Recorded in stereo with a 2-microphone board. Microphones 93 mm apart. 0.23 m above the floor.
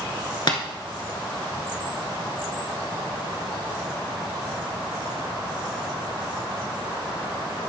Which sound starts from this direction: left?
Tapping, at 0.5 s.